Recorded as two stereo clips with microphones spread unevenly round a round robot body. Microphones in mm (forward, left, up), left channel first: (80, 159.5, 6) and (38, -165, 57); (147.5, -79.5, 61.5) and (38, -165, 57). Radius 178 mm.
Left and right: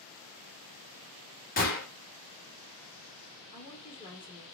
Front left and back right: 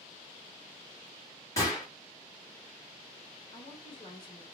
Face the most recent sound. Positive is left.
turn(degrees=40)